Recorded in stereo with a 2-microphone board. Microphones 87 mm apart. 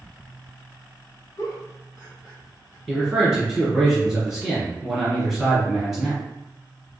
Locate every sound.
1.4 s a giggle: 30° left (ahead or behind), 1.6 m
2.9 s a man speaking: centre (ahead or behind), 1.6 m